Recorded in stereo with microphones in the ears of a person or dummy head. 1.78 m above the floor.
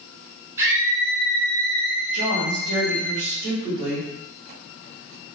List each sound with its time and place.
0.6 s a scream: 15° right (ahead or behind), 0.9 m; by 3.1 s 75° right (ahead or behind), 1.9 m
2.1 s a woman speaking: 60° right (ahead or behind), 1.7 m